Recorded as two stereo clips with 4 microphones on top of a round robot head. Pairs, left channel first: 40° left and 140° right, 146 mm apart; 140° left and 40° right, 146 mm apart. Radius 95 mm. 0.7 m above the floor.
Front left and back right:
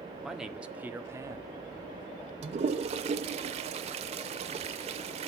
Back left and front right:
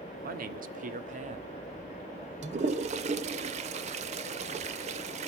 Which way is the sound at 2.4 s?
90° right.